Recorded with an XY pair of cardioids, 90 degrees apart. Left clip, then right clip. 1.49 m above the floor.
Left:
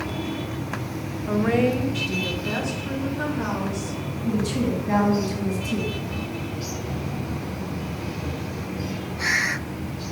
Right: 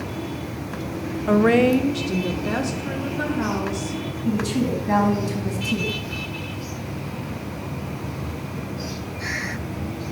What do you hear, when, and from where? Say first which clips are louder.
1.3 s a woman speaking: right 5 dB; 60° right, 0.5 m; by 4.0 s 35° right, 2.5 m
4.2 s a woman speaking: right 1 dB; 35° right, 3 m